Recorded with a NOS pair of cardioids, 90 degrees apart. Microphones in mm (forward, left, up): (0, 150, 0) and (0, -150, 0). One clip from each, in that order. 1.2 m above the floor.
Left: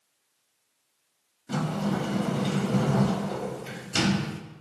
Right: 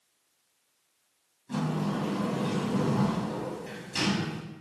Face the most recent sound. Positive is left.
turn(degrees=50)